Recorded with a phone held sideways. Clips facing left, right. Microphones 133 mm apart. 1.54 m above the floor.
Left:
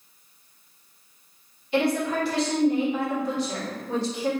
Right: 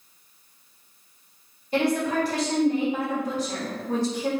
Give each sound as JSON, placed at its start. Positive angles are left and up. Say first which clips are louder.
{"t": 1.7, "sound": "a woman speaking", "louder": "even", "side_deg": -40, "distance_m": 1.9}